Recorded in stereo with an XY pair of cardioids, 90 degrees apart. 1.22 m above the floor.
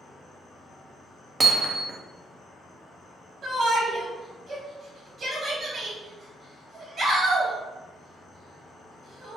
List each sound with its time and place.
0.0 s an insect: 60° left, 1.1 m
1.4 s hammering: 30° right, 0.6 m
3.4 s a shout: 50° right, 1.7 m